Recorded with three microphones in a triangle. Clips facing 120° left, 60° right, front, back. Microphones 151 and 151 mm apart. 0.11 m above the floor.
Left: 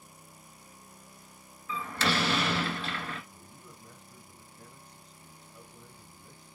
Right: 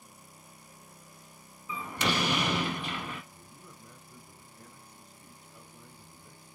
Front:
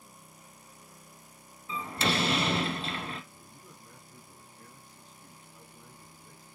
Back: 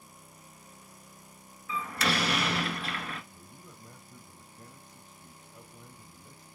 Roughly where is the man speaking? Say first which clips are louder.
Even, back 1 dB; behind right.